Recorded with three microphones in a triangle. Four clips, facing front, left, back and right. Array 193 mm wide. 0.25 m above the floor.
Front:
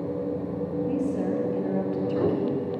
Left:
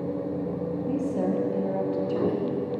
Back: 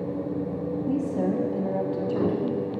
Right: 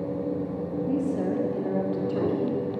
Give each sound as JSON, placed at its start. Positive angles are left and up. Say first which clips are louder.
{"t": 0.9, "sound": "a woman speaking", "louder": "even, back 2 dB", "azimuth_deg": 135, "distance_m": 1.2}